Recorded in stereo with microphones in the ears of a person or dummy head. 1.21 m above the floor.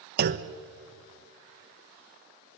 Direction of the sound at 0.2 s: 55° right (ahead or behind).